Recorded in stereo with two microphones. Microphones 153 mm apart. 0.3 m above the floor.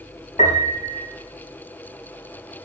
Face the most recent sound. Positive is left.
turn(degrees=55)  # may be behind; listen again after turning